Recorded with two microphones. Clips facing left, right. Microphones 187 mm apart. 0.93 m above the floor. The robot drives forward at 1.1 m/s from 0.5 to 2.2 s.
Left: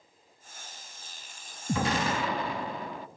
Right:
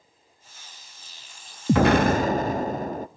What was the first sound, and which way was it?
An explosion, 70° right (ahead or behind).